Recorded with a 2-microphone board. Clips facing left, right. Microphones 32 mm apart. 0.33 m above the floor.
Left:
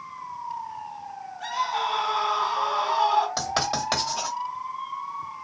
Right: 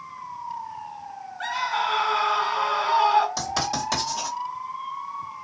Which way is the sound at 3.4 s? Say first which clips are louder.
Even; 20° left (ahead or behind).